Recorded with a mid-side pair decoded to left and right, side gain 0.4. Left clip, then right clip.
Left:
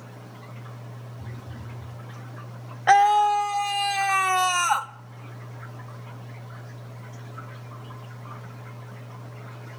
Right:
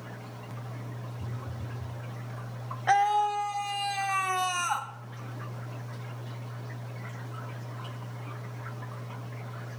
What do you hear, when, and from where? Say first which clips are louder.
1.2 s a phone buzzing: even; 5° left, 1.3 m
2.9 s a scream: left 7 dB; 55° left, 0.5 m